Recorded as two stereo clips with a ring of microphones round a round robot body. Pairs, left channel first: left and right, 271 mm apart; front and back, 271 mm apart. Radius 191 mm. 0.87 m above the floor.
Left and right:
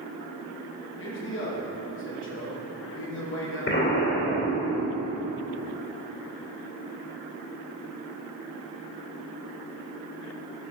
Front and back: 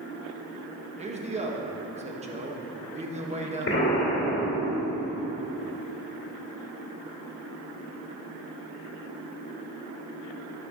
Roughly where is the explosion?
Ahead left.